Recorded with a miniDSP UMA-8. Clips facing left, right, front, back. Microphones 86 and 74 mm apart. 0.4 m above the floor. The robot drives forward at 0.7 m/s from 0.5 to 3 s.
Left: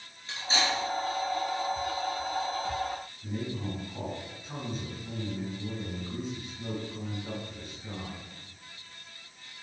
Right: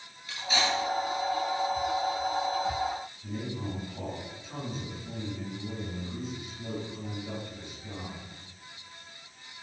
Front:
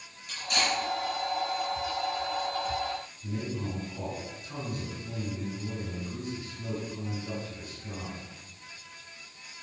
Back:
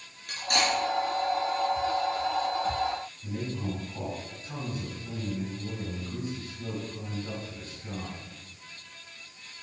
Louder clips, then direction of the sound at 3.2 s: Left 3 dB, front 2 dB; 135° left.